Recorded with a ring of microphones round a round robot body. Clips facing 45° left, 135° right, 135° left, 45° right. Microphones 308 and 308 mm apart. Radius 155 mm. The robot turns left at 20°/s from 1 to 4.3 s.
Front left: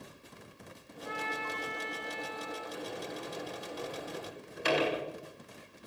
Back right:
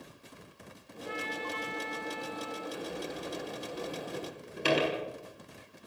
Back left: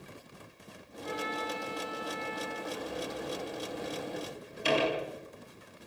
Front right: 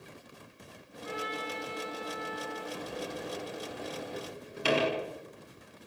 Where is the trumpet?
35° left, 8.5 m; by 2.6 s 5° left, 8.5 m.